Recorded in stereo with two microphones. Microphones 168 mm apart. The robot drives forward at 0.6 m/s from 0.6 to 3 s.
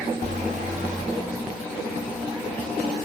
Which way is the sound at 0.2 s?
50° right (ahead or behind).